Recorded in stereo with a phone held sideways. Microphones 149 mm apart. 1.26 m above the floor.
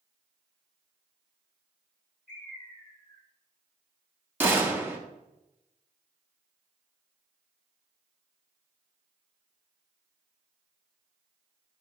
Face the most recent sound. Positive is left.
turn(degrees=-15)  # may be behind; listen again after turning